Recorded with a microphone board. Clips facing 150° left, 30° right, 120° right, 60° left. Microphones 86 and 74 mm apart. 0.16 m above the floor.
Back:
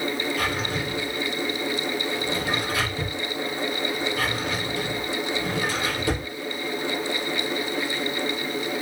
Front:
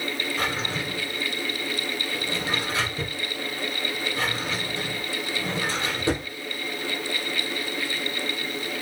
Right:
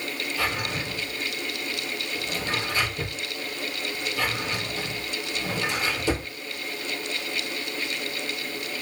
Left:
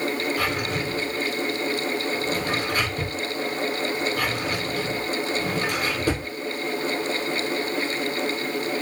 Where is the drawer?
35° left, 2 m.